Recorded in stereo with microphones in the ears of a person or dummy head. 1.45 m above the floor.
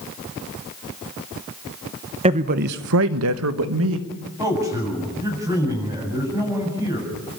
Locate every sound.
2.2 s a man speaking: 25° right (ahead or behind), 0.9 m; by 4.1 s 70° right (ahead or behind), 2.0 m
4.4 s a man speaking: 15° right (ahead or behind), 8 m